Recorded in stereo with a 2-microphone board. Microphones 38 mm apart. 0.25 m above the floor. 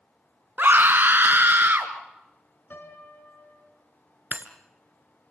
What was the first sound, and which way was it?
A scream, 60° right (ahead or behind).